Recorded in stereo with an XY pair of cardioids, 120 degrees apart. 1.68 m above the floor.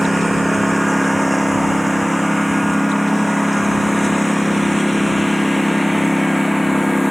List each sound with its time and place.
0.0 s a lawn mower: 5° right; by 7.1 s 5° left